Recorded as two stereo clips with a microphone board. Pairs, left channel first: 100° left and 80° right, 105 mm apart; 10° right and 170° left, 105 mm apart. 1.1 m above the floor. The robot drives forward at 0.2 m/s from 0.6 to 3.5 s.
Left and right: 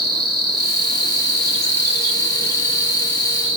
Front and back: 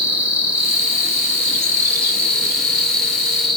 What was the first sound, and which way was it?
An insect, 115° right.